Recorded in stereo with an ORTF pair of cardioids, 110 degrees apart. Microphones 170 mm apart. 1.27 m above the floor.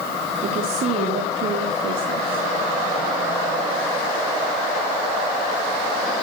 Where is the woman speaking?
55° right, 3.5 m; by 2.5 s 65° right, 2.5 m.